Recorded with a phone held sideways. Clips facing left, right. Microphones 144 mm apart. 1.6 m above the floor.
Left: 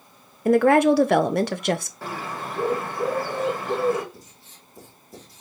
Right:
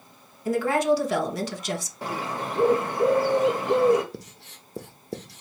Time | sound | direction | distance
0.5 | a woman speaking | 60° left (ahead or behind) | 0.6 m
2.0 | a bird | 15° right (ahead or behind) | 1.1 m
4.1 | writing | 75° right (ahead or behind) | 0.6 m